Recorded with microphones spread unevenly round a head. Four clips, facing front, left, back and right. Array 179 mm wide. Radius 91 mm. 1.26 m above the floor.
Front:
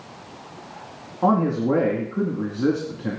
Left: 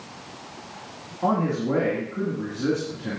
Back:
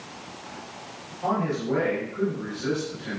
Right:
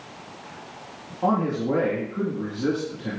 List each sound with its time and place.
1.2 s a man speaking: 10° right, 2 m